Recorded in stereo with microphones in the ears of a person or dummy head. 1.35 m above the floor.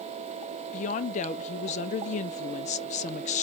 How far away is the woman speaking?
About 0.7 m.